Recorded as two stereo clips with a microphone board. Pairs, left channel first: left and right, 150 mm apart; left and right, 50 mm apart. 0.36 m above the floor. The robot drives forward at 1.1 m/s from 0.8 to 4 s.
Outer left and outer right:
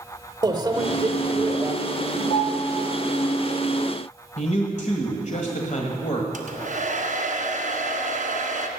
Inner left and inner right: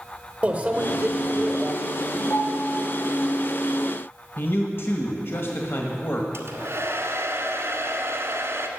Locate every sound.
0.4 s a microwave: 25° right (ahead or behind), 1.2 m; by 1.7 s 20° right (ahead or behind), 1.6 m
2.3 s a piano: 60° left (ahead or behind), 3.5 m; by 2.8 s 65° left (ahead or behind), 3 m
4.4 s a man speaking: 55° left (ahead or behind), 1.6 m
6.3 s a hair dryer: 60° right (ahead or behind), 1.6 m